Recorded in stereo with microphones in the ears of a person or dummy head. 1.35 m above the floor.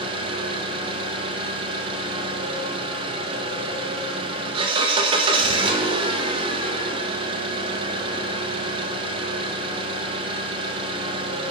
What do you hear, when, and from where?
0.0 s an engine running: 35° right (ahead or behind), 0.9 m